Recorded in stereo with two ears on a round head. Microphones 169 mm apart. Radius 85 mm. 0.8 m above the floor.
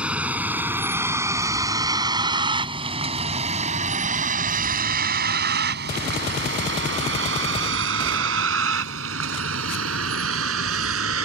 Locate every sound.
0.0 s a vehicle: 5° right (ahead or behind); by 11.2 s 80° right